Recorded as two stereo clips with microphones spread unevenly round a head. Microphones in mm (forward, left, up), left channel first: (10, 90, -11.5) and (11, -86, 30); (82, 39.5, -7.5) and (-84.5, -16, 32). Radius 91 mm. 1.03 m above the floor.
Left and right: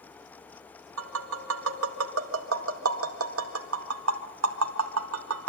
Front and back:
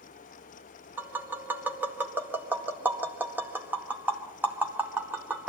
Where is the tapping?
75° right, 1.9 m.